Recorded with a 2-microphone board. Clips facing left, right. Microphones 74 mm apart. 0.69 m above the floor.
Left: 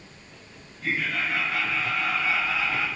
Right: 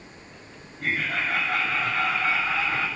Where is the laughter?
60° right (ahead or behind), 4.5 m; by 2.9 s 45° right (ahead or behind), 4 m.